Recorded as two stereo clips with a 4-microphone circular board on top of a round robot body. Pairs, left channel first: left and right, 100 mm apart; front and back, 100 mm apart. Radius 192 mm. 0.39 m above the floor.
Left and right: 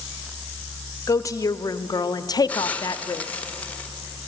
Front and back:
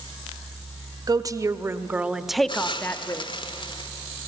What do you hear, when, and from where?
1.1 s a woman speaking: 140° left, 1.2 m; by 3.2 s 45° left, 1.1 m
2.5 s a hiss: 15° left, 1.2 m